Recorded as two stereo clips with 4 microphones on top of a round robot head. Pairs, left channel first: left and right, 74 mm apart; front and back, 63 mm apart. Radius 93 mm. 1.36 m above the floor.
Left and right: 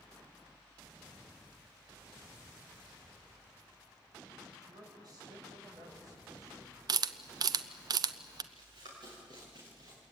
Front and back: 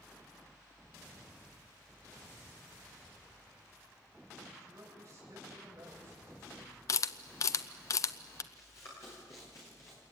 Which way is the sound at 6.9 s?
50° right.